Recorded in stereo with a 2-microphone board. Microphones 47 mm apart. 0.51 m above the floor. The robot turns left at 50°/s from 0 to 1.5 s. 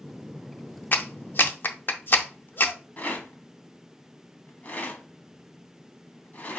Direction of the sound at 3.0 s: 35° left (ahead or behind).